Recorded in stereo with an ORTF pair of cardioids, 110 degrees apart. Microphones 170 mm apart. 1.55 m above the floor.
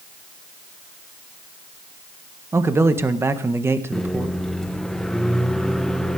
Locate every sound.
2.5 s a man speaking: 15° right, 1.6 m
3.9 s a microwave: 5° left, 1.0 m